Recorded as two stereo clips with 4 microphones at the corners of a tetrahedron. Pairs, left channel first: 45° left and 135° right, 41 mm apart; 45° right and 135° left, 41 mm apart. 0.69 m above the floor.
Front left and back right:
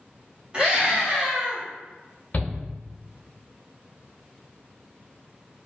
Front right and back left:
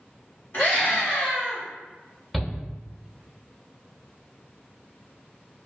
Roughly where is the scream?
Right.